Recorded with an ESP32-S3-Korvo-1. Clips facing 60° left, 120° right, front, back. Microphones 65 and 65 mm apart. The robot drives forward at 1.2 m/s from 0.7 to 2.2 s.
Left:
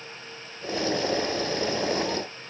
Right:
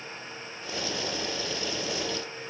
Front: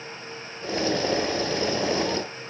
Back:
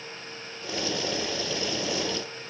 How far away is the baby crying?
No baby crying in this recording.